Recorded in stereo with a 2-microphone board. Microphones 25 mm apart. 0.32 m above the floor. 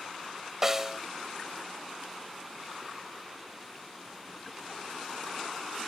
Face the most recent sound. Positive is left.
turn(degrees=-15)  # may be behind; listen again after turning